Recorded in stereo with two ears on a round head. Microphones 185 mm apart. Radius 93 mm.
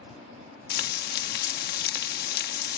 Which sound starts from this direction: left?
Frying, at 0.7 s.